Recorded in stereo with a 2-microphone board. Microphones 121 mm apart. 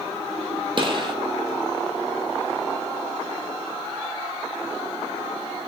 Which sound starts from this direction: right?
A gunshot, at 0.8 s.